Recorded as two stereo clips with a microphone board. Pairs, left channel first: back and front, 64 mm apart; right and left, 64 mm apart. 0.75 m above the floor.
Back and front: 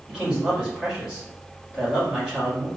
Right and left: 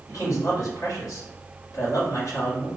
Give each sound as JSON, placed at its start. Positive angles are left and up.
{"t": 0.1, "sound": "a man speaking", "azimuth_deg": -75, "distance_m": 1.6}